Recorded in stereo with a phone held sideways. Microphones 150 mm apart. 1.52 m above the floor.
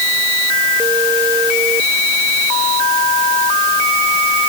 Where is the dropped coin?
No dropped coin in this recording.